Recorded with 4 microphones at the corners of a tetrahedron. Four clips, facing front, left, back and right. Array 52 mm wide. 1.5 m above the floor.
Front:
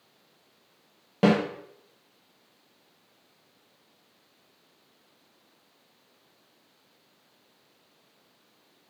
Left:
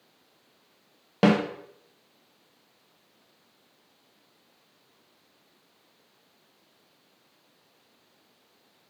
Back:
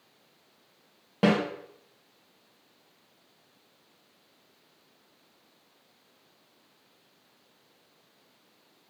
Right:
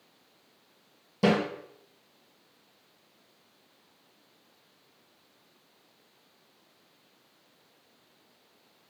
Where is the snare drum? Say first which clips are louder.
Left 3 dB, front 2 dB; 95° left, 1.2 m.